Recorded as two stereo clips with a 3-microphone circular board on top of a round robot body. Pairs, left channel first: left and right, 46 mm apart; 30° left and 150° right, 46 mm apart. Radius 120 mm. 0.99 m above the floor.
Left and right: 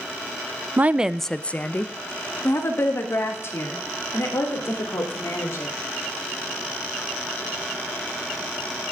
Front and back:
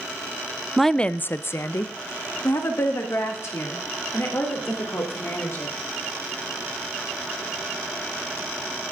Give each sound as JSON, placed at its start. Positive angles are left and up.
{"t": 0.8, "sound": "a woman speaking", "azimuth_deg": -60, "distance_m": 0.6}